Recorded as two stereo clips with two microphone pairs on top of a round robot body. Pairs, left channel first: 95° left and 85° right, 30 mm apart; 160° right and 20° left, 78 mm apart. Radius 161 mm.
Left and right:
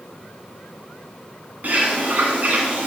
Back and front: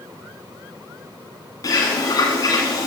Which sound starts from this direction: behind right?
A bird, at 1.6 s.